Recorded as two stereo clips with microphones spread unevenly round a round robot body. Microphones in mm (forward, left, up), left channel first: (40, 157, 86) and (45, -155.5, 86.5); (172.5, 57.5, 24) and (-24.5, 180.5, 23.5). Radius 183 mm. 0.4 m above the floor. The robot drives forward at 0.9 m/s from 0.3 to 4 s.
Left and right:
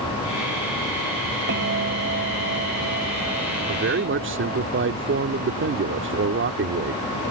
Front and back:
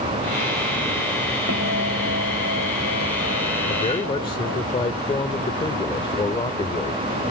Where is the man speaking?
65° right; by 7.0 s 90° right.